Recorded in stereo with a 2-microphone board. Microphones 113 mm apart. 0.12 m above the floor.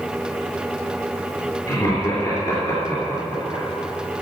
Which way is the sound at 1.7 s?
35° left (ahead or behind).